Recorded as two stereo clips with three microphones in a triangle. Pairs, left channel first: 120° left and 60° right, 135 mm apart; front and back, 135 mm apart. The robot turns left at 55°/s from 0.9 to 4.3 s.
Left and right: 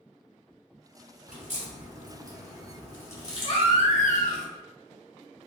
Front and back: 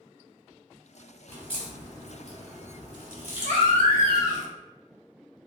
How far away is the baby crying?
About 0.8 m.